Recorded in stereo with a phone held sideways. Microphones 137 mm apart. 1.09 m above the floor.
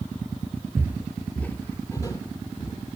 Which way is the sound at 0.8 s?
20° right (ahead or behind).